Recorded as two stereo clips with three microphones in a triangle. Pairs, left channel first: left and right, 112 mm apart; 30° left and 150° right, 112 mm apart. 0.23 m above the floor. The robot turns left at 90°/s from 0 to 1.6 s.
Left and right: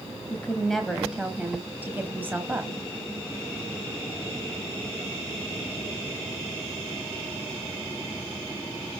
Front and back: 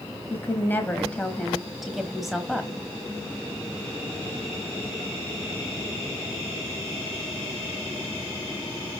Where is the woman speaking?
50° left, 1.1 m; by 2.7 s 65° right, 1.1 m.